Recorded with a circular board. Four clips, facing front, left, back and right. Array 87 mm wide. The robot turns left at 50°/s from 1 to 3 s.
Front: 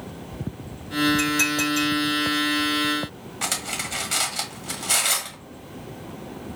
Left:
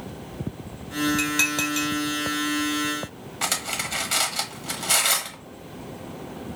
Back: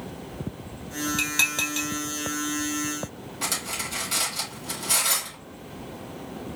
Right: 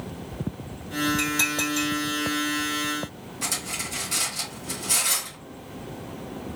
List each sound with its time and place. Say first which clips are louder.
1.2 s dishes clattering: left 1 dB, front 7 dB; 155° left, 1.4 m; by 1.9 s 120° left, 1.4 m
3.4 s cutlery clinking: left 5 dB, front 2 dB; 60° left, 1.3 m